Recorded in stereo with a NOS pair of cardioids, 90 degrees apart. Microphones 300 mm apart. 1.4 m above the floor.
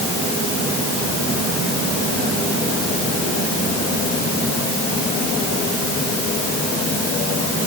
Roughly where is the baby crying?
I don't hear a baby crying.